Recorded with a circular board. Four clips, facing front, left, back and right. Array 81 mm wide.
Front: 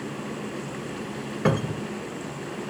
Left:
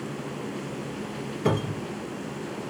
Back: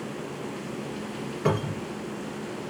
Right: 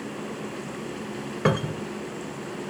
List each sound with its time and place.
1.4 s a cupboard door: 70° right, 1.7 m